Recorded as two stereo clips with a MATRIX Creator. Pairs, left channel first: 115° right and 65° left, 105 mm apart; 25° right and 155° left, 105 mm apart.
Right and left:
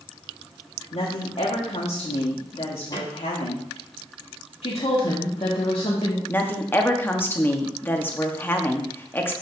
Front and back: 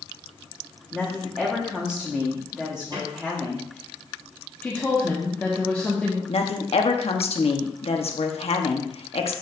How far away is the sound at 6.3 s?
About 1.1 m.